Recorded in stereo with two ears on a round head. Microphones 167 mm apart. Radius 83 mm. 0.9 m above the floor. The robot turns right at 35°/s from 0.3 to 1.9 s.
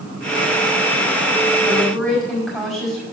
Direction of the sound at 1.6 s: 10° left (ahead or behind).